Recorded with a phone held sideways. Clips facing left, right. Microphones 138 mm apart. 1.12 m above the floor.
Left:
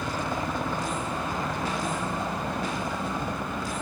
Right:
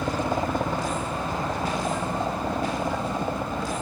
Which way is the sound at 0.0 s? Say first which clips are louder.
Right 4 dB; 35° right (ahead or behind).